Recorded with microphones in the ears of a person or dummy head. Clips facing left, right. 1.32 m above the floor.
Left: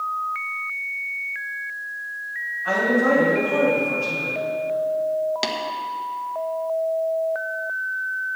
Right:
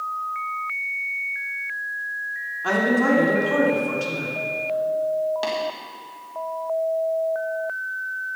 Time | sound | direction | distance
2.6 | a woman speaking | 85° right | 3 m
5.4 | tapping | 30° left (ahead or behind) | 1.6 m